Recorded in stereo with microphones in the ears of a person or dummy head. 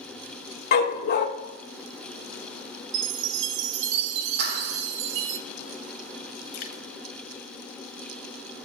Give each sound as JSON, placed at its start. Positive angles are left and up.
{"t": 0.7, "sound": "a dog barking", "side_deg": 55, "distance_m": 1.0}
{"t": 2.9, "sound": "a chime", "side_deg": -75, "distance_m": 0.8}
{"t": 4.4, "sound": "a clap", "side_deg": -70, "distance_m": 2.5}
{"t": 6.5, "sound": "dripping", "side_deg": 55, "distance_m": 0.8}